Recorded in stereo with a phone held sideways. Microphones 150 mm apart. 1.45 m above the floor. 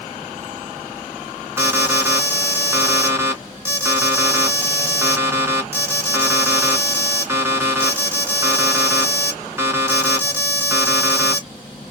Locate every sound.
1.6 s an alarm: 15° right (ahead or behind), 2 m